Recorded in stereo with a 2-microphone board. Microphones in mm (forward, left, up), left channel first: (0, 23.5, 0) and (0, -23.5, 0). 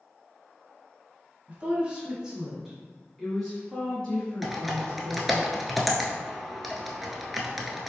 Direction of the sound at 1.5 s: 30° right (ahead or behind).